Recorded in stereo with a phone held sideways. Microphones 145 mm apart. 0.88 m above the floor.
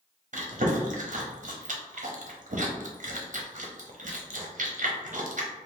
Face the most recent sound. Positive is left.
turn(degrees=-60)  # may be behind; listen again after turning